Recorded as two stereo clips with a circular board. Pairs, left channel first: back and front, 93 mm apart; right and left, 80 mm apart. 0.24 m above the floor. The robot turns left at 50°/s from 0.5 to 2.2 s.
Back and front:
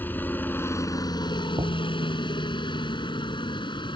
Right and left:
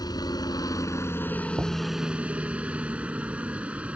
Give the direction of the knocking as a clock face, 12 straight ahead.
11 o'clock.